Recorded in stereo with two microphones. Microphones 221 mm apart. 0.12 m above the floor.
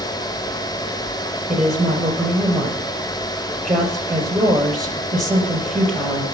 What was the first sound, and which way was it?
A woman speaking, centre (ahead or behind).